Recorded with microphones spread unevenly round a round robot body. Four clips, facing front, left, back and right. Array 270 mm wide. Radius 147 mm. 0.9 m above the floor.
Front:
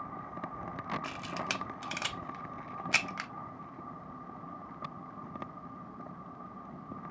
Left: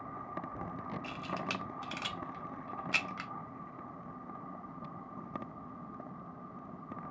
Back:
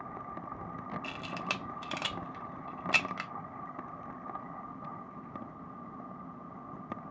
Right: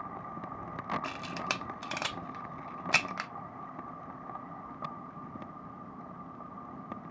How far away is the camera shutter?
About 0.8 m.